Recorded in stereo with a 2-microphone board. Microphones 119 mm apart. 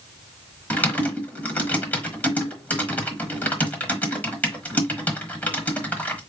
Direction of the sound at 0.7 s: 15° left (ahead or behind).